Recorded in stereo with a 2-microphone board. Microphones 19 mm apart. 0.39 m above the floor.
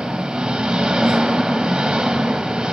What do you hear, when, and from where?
0.0 s an engine running: 60° right (ahead or behind), 1.0 m